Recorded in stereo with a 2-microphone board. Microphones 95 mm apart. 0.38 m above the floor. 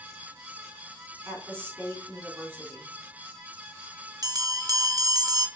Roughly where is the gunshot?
I don't hear a gunshot.